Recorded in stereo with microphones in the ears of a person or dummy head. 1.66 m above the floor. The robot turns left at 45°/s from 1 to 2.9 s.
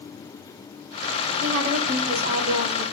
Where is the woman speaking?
105° right, 5 m; by 2.8 s 170° right, 5 m.